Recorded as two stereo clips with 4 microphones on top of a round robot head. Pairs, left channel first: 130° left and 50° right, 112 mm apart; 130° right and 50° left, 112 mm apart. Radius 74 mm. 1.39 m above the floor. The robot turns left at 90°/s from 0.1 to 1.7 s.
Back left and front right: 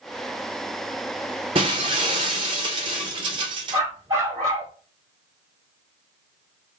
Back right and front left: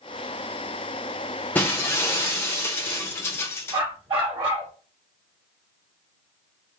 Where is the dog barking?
5° left, 2.5 m.